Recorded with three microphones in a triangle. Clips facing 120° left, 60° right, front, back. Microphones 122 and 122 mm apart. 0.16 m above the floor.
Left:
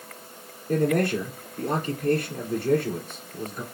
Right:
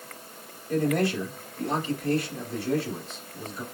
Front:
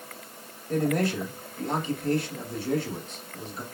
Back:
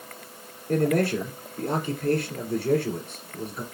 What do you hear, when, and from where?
0.7 s a man speaking: 150° left, 2.5 m